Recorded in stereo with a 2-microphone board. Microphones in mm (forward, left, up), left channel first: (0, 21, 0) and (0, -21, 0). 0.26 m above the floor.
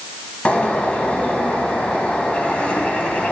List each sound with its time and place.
0.5 s a bird: 30° left (ahead or behind), 0.9 m